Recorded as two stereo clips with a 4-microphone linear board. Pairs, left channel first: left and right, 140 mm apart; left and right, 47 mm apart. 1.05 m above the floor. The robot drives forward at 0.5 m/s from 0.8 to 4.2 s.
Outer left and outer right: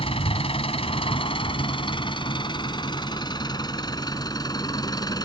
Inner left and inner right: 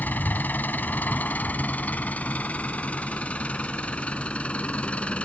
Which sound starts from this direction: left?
An engine running, at 0.0 s.